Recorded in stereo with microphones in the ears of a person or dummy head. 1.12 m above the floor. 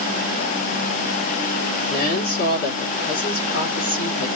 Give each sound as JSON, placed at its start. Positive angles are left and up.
{"t": 1.9, "sound": "a woman speaking", "side_deg": 50, "distance_m": 2.0}